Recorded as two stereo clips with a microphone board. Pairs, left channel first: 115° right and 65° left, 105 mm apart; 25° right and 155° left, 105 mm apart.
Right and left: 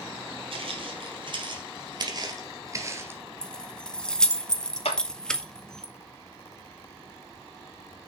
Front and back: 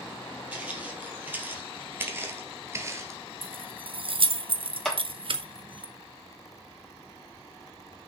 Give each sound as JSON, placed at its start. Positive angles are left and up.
{"t": 0.5, "sound": "footsteps", "azimuth_deg": 85, "distance_m": 3.0}
{"t": 3.4, "sound": "keys jangling", "azimuth_deg": 165, "distance_m": 0.8}
{"t": 4.8, "sound": "a clap", "azimuth_deg": -110, "distance_m": 2.5}